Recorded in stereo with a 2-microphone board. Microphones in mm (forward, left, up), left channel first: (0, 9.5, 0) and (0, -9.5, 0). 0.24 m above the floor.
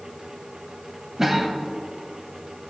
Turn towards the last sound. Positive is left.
turn(degrees=-25)  # may be behind; listen again after turning